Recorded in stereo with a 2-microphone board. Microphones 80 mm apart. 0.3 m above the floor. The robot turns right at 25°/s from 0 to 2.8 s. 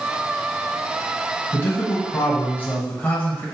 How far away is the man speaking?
About 1.0 m.